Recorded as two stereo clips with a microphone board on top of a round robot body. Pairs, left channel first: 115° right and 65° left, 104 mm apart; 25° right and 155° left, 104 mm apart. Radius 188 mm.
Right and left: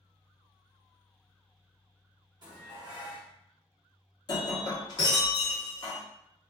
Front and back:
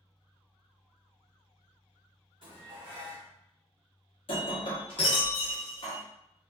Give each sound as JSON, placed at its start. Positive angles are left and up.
{"t": 2.4, "sound": "dishes clattering", "azimuth_deg": 115, "distance_m": 1.3}
{"t": 4.3, "sound": "breaking glass", "azimuth_deg": -60, "distance_m": 1.0}